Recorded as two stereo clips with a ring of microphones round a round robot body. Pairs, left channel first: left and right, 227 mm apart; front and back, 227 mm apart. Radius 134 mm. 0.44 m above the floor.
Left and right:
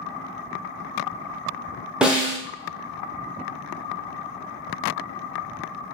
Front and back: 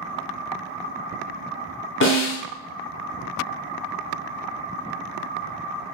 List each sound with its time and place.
2.0 s a snare drum: 5° right, 1.0 m